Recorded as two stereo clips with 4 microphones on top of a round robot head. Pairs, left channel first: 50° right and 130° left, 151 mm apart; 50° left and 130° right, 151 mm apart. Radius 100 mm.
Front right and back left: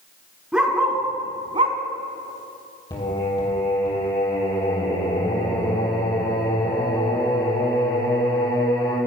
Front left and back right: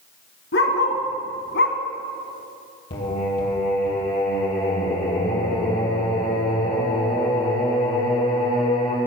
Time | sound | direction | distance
0.5 | a dog barking | 45° left | 2.5 m
2.9 | singing | 15° left | 4.5 m